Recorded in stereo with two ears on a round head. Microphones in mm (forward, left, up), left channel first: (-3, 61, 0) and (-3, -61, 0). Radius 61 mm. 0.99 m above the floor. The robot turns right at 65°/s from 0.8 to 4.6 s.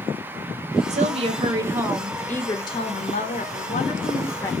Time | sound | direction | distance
0.9 | a woman speaking | 75° right | 1.0 m